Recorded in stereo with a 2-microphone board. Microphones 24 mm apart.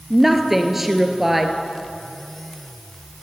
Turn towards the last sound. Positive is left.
turn(degrees=-5)  # may be behind; listen again after turning